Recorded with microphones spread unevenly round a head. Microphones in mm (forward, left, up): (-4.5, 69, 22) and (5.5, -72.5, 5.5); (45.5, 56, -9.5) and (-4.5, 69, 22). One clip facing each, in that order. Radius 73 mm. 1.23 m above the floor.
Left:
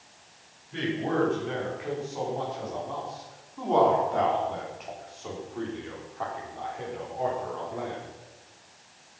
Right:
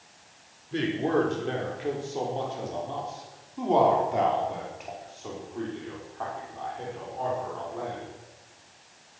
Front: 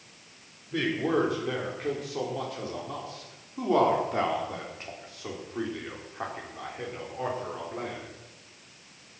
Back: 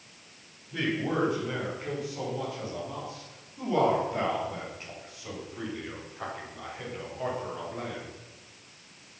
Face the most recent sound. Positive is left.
turn(degrees=25)